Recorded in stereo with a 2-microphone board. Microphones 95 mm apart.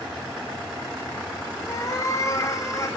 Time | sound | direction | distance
1.7 | a cat meowing | 35° left (ahead or behind) | 3 m